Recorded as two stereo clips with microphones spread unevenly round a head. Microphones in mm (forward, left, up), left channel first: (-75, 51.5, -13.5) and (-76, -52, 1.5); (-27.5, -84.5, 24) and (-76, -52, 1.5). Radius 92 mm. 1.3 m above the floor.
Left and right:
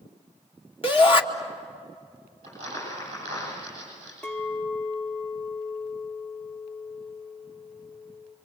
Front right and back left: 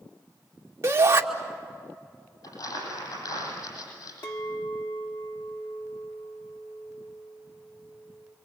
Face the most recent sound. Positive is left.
turn(degrees=5)